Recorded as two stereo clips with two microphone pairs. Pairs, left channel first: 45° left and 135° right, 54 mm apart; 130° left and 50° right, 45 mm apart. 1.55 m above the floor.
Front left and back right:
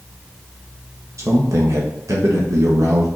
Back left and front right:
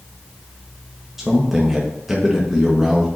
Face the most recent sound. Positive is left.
turn(degrees=-130)